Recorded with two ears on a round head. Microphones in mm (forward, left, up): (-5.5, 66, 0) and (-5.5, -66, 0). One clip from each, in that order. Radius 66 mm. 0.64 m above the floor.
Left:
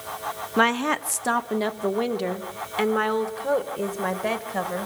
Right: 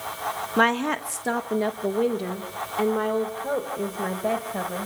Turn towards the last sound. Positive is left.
turn(degrees=65)  # may be behind; listen again after turning